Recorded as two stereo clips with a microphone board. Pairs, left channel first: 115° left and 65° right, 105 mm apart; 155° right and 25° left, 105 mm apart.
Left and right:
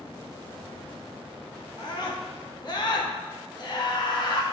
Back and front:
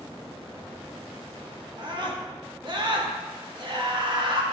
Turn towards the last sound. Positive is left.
turn(degrees=65)